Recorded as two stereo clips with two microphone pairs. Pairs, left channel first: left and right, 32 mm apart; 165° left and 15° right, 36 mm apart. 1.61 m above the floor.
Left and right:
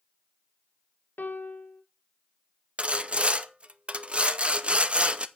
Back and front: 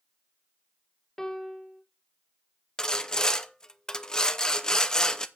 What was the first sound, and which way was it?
A piano, 85° left.